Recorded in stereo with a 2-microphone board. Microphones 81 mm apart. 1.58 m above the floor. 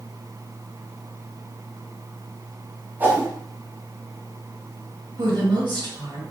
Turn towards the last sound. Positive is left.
turn(degrees=-65)  # may be behind; listen again after turning